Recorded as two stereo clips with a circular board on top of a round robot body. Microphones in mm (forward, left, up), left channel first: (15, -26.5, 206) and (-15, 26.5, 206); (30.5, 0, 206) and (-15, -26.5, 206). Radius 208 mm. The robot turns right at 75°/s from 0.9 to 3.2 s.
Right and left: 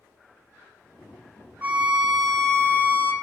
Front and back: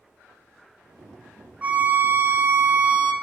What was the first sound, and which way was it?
A violin, 170° left.